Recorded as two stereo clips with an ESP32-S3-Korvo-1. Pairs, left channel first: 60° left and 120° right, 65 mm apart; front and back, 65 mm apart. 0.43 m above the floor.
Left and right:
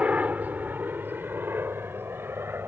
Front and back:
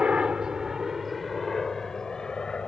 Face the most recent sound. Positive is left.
turn(degrees=-75)